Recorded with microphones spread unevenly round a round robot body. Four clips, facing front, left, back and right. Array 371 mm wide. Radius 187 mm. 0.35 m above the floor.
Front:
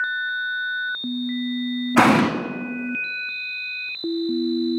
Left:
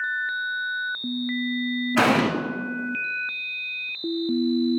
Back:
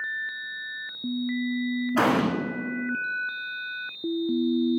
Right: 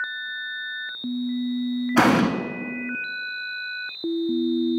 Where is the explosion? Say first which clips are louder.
Right 2 dB, front 7 dB; 25° right, 0.8 m.